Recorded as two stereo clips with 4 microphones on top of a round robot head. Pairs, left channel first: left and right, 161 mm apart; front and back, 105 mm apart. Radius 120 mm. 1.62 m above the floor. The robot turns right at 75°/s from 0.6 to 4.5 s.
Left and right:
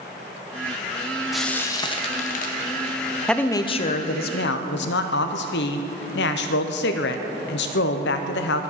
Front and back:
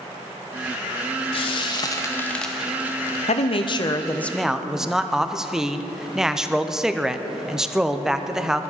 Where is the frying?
5° right, 0.7 m; by 3.2 s 135° left, 0.7 m.